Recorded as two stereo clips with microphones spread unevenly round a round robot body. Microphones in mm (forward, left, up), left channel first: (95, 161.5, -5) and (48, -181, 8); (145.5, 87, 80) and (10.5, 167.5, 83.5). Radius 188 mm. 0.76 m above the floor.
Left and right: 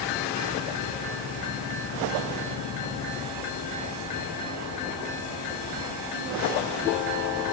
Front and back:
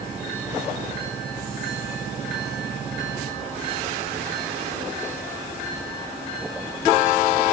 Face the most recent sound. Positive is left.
No sound to turn to.